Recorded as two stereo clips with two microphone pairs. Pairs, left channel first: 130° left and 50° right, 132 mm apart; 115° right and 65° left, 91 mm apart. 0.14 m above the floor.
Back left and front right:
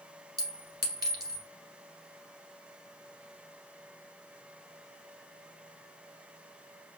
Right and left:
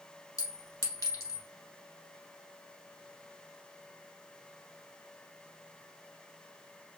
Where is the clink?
90° right, 1.3 m.